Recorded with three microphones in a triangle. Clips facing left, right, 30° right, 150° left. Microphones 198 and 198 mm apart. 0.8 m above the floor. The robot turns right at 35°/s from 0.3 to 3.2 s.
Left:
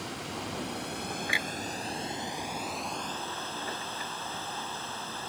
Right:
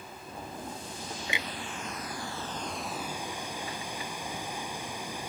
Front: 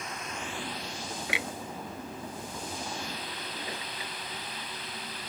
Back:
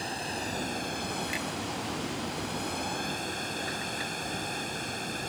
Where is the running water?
90° left; by 5.3 s 165° right.